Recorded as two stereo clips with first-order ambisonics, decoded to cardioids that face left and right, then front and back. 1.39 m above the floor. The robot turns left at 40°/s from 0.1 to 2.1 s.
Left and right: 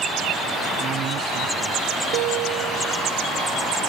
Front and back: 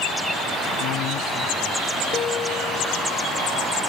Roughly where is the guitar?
Ahead right.